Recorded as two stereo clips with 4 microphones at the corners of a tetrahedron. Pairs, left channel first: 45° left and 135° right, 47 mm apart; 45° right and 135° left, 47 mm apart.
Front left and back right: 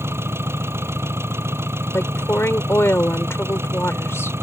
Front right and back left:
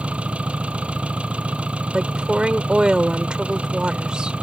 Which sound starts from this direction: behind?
An engine running, at 0.0 s.